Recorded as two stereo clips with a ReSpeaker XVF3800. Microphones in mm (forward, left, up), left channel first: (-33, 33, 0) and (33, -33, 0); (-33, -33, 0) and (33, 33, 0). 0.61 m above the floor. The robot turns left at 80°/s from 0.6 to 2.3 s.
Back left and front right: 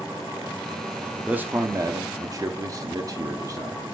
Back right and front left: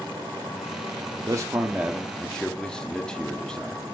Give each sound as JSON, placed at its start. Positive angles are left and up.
{"t": 1.2, "sound": "a man speaking", "azimuth_deg": 25, "distance_m": 1.1}